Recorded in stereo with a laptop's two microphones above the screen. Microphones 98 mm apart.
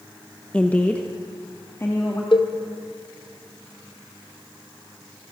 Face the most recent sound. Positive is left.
turn(degrees=60)  # may be behind; listen again after turning